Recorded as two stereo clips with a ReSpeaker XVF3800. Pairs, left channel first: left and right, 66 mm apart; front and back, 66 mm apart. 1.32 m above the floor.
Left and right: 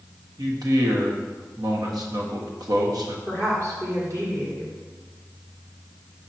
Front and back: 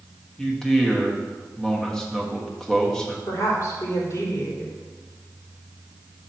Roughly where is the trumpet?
No trumpet in this recording.